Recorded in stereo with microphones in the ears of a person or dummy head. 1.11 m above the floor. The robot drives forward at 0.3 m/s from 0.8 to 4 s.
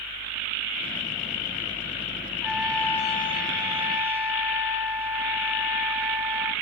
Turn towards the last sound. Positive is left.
turn(degrees=-20)  # may be behind; listen again after turning